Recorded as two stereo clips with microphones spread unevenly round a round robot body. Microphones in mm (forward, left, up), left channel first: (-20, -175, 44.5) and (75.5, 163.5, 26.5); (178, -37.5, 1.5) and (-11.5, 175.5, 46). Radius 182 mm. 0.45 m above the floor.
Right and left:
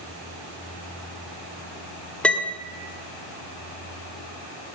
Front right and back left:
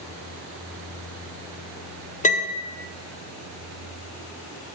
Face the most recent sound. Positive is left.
turn(degrees=-15)